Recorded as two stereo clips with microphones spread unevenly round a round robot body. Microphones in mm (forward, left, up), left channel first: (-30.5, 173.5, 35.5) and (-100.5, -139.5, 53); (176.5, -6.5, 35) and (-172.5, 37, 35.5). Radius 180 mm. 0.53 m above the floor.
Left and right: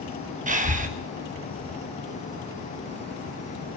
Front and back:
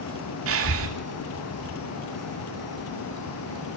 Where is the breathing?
160° right, 1.6 m.